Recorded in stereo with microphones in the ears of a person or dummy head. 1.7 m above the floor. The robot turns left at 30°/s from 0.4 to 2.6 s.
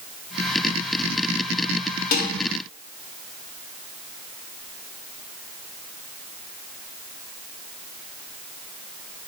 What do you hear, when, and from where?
2.1 s dishes clattering: 50° left (ahead or behind), 1.6 m